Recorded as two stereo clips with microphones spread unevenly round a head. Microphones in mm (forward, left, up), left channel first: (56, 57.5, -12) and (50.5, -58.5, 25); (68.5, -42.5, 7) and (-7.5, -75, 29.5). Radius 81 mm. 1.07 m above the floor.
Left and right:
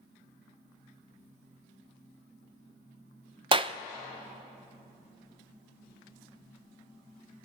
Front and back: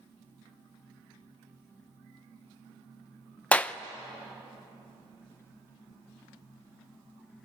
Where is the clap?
40° right, 0.6 m.